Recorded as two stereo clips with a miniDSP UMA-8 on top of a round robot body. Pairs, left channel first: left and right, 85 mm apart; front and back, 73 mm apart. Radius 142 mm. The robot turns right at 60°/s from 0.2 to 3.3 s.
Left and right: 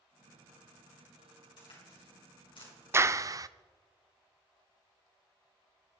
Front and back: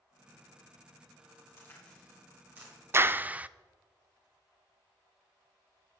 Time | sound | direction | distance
1.6 | a crack | 55° left | 5 m
2.9 | a clap | 140° right | 0.6 m